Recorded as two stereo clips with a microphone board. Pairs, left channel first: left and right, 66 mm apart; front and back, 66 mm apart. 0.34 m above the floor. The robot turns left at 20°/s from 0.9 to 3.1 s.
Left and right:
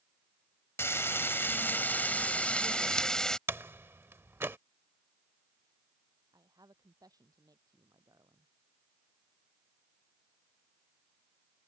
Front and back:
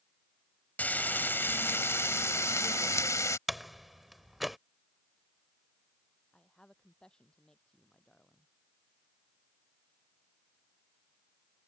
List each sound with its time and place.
0.8 s frying: 60° left; by 3.4 s 15° left
3.5 s a door slam: 90° right
6.3 s a woman speaking: 75° right